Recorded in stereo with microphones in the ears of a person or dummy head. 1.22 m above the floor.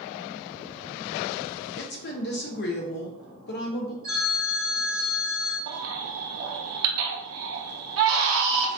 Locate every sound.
1.8 s a woman speaking: 45° left (ahead or behind), 0.5 m
4.0 s a phone ringing: 20° left (ahead or behind), 1.3 m
5.7 s a baby crying: 75° right (ahead or behind), 0.6 m